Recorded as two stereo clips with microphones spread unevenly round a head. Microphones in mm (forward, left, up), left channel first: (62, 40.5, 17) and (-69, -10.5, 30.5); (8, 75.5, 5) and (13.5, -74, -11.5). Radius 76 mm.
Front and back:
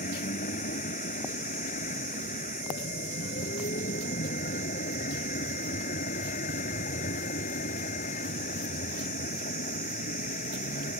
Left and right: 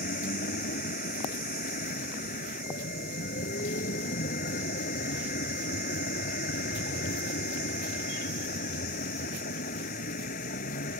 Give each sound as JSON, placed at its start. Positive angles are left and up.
{"t": 0.0, "sound": "a vehicle", "azimuth_deg": 60}